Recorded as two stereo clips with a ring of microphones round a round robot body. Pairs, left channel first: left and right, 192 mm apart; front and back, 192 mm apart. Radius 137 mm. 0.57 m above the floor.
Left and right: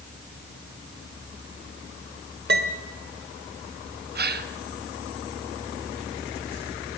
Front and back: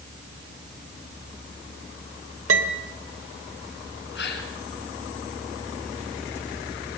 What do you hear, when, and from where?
2.5 s a piano: 140° right, 1.2 m
4.2 s a gasp: 55° right, 2 m